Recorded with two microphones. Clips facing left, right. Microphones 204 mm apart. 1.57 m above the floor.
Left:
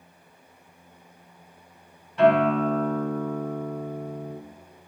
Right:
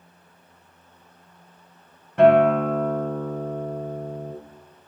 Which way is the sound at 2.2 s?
55° right (ahead or behind).